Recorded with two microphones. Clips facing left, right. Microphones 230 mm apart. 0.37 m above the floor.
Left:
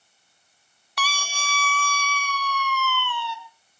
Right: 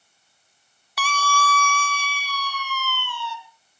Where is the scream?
5° right (ahead or behind), 1.1 m; by 3.4 s 65° left (ahead or behind), 3.5 m.